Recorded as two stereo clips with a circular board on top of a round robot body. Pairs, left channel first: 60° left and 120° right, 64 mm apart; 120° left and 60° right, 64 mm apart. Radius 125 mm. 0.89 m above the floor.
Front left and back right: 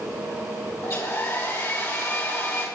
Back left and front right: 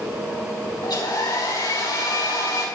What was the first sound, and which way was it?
A hair dryer, 105° left.